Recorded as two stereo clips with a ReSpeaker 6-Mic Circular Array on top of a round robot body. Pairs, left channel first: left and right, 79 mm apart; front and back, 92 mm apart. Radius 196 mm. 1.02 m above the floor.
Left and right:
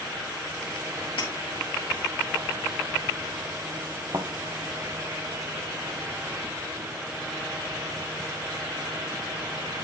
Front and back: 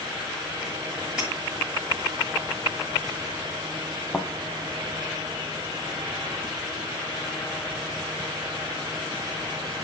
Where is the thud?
80° right, 0.9 m.